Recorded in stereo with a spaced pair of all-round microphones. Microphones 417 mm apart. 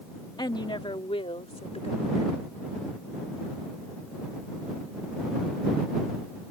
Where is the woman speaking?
10° left (ahead or behind); by 2.3 s 15° left (ahead or behind).